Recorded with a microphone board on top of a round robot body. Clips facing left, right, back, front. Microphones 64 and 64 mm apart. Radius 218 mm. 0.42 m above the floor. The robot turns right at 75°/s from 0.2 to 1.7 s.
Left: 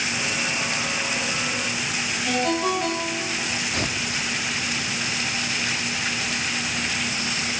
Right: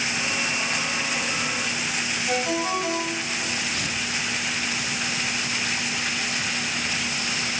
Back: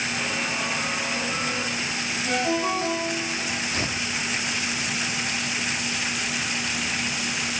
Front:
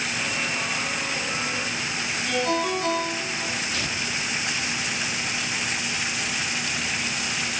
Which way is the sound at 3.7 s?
125° left.